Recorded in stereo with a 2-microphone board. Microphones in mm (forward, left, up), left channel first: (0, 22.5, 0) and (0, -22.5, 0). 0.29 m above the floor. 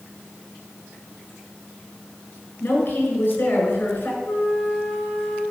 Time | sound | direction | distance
2.6 | a woman speaking | 55° left (ahead or behind) | 4 m
4.2 | a flute | 85° left | 2.5 m